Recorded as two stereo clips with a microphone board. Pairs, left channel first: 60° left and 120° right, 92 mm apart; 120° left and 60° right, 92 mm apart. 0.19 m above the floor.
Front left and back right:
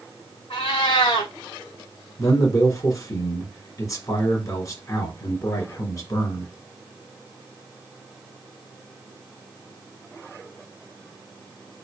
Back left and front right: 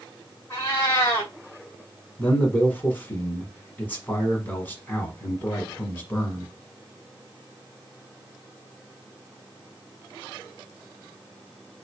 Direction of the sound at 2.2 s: 65° left.